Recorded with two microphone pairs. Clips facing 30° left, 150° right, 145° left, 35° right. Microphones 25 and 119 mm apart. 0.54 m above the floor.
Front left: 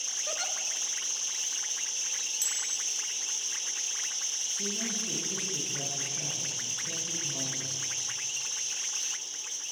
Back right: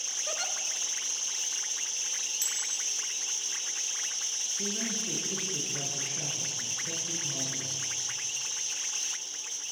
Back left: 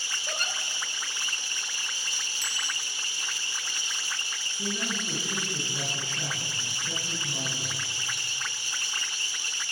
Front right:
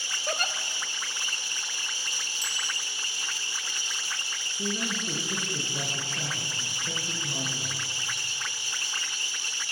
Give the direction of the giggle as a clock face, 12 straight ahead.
2 o'clock.